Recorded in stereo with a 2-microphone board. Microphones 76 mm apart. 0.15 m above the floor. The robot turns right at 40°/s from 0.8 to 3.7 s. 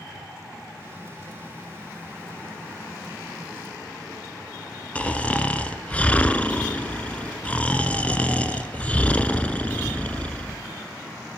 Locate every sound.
5.0 s snoring: 20° left (ahead or behind), 1.3 m